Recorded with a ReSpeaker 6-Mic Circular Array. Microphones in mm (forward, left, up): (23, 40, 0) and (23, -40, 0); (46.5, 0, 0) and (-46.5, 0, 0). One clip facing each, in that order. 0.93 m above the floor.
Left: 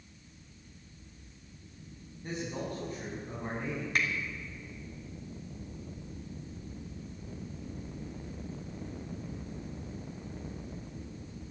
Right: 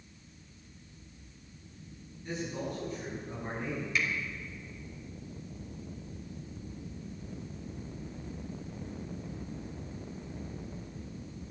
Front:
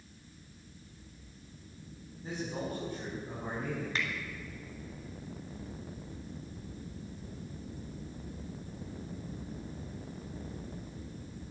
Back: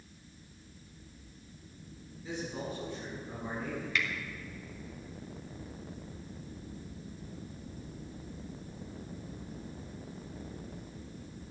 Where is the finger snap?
55° left, 2 m.